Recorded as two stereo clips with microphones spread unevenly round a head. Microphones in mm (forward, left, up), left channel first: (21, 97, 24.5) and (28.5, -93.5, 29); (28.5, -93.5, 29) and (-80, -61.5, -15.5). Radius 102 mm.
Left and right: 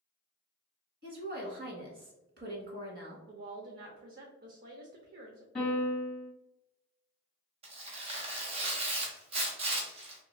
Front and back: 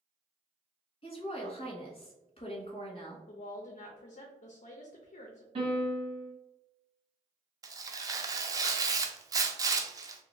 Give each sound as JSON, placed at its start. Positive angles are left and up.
{"t": 1.0, "sound": "a woman speaking", "azimuth_deg": -65, "distance_m": 1.4}
{"t": 3.3, "sound": "a woman speaking", "azimuth_deg": -50, "distance_m": 0.6}
{"t": 5.5, "sound": "a piano", "azimuth_deg": 175, "distance_m": 1.8}
{"t": 7.6, "sound": "tearing paper", "azimuth_deg": -120, "distance_m": 0.5}